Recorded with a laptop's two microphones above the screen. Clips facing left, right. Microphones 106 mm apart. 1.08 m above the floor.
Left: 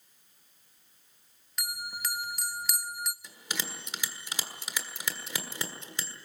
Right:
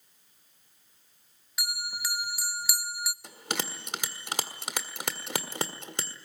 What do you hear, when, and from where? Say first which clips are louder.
1.6 s a bell: right 1 dB; 5° right (ahead or behind), 0.6 m
3.2 s a bell: right 4 dB; 65° right (ahead or behind), 1.5 m